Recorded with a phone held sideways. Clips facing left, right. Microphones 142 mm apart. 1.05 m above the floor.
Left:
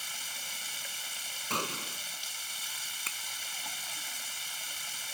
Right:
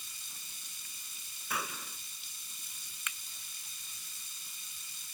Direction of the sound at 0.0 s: 85° left.